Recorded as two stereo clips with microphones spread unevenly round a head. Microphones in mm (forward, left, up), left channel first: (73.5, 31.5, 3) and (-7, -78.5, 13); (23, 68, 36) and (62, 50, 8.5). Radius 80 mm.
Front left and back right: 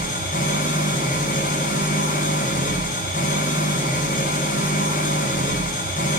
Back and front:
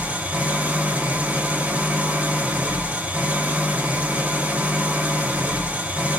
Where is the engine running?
40° left, 4 m.